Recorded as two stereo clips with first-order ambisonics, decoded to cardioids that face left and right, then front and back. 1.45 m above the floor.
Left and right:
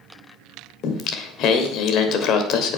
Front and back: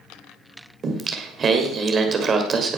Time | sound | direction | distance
0.8 | singing | 115° left | 1.6 m